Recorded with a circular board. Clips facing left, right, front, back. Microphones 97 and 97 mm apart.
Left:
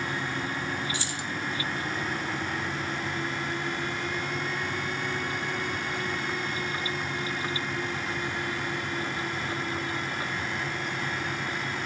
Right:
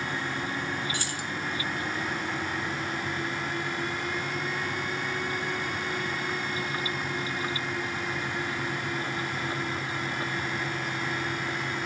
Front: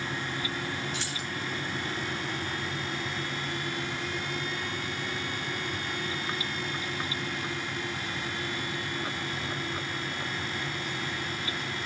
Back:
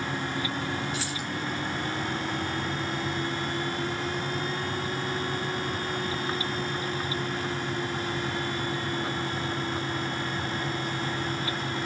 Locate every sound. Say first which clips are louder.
0.9 s keys jangling: even, back 3 dB; 90° right, 0.7 m